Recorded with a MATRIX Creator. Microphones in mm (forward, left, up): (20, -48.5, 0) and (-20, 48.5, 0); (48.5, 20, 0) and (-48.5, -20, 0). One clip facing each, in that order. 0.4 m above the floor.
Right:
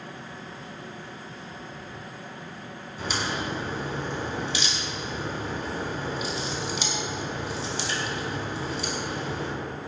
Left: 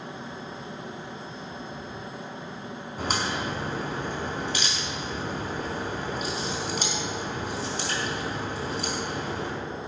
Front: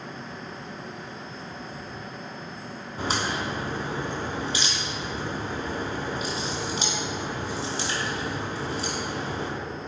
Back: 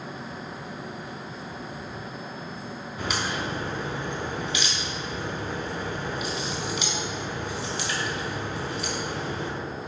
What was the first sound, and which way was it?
A crack, 75° left.